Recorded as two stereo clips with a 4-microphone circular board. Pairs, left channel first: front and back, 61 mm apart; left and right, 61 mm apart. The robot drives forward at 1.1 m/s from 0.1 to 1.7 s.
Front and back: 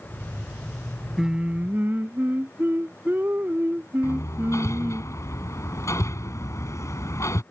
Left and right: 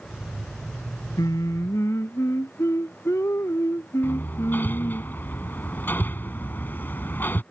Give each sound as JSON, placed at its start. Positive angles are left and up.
{"t": 1.2, "sound": "singing", "azimuth_deg": 95}
{"t": 4.0, "sound": "hammering", "azimuth_deg": 35}